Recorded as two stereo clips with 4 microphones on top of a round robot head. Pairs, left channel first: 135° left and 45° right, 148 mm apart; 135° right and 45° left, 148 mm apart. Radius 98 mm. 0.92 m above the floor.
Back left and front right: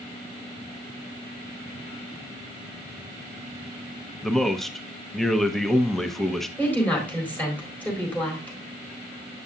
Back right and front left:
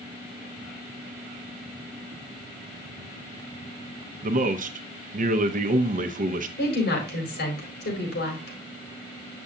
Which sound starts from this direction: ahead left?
A man speaking, at 4.2 s.